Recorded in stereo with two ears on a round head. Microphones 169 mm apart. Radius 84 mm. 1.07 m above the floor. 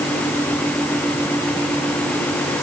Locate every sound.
Only background noise.